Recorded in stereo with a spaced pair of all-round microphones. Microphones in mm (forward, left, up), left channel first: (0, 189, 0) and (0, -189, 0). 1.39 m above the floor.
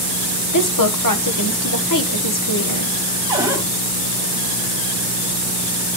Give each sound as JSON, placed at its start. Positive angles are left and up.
{"t": 0.5, "sound": "a woman speaking", "side_deg": 55, "distance_m": 1.1}
{"t": 3.3, "sound": "a cupboard door", "side_deg": -10, "distance_m": 3.0}